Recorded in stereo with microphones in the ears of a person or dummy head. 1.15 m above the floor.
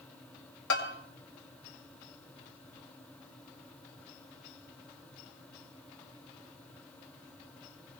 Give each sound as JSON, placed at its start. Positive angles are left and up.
{"t": 0.7, "sound": "a bell", "side_deg": 75, "distance_m": 2.0}